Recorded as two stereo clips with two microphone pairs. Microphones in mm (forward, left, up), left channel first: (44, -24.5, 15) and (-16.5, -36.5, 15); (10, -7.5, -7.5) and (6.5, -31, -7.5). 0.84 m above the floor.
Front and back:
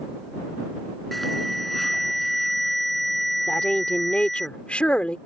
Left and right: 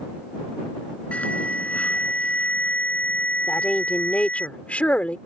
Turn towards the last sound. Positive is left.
turn(degrees=80)